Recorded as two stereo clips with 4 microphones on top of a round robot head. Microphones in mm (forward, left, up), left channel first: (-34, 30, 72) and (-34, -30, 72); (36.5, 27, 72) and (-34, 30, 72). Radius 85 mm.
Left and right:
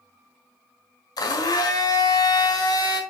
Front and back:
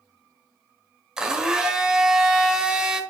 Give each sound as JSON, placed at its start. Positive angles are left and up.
{"t": 1.2, "sound": "a blender", "azimuth_deg": 95, "distance_m": 1.4}